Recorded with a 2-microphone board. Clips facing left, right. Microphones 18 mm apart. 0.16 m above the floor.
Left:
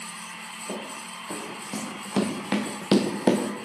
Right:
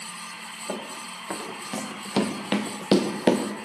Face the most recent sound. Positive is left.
turn(degrees=-20)  # may be behind; listen again after turning